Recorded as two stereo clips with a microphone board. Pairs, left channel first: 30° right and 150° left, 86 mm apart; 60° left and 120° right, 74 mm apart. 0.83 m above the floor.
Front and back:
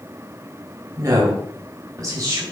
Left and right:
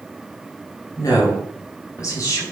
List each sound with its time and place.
1.0 s a woman speaking: 100° left, 5 m